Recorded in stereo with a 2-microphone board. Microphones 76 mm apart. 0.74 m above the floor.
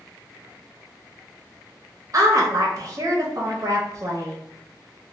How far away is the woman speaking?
About 0.6 m.